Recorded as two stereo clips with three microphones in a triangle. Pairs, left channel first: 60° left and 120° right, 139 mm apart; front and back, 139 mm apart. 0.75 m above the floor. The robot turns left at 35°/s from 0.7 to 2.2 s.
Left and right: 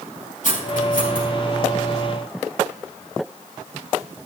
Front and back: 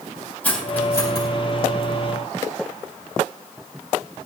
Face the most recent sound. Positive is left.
turn(degrees=25)